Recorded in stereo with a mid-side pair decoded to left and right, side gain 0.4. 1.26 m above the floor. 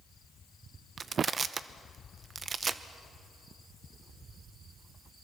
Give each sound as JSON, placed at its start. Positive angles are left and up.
{"t": 1.0, "sound": "crushing", "azimuth_deg": -45, "distance_m": 0.9}